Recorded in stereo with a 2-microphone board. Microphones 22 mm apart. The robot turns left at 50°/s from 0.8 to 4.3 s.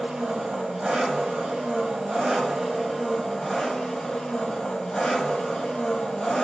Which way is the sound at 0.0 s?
65° right.